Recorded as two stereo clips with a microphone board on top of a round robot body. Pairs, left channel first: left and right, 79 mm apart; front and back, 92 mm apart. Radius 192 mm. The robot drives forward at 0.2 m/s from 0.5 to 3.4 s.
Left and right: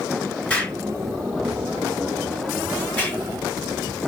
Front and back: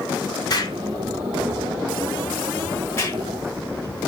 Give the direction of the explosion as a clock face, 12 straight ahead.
11 o'clock.